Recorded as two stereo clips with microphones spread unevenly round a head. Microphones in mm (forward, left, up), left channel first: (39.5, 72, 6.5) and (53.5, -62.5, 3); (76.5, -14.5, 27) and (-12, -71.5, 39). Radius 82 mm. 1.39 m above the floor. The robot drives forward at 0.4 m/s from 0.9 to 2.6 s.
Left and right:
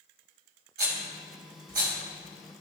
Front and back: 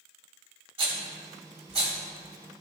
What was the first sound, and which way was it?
A rattle, 120° right.